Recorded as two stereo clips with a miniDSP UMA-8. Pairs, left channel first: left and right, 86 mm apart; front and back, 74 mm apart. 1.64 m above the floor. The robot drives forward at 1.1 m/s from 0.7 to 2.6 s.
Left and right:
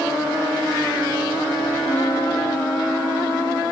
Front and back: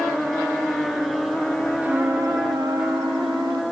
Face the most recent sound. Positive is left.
turn(degrees=155)